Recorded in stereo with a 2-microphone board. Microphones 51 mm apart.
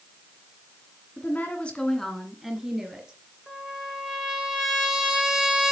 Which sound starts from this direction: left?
A woman speaking, at 1.2 s.